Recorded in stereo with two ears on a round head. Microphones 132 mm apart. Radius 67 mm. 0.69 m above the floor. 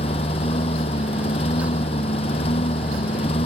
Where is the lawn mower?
40° left (ahead or behind).